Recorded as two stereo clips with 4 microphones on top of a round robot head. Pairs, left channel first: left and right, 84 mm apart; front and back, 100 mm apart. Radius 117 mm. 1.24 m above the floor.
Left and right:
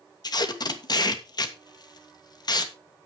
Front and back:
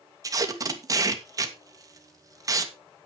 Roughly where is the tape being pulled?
Behind left.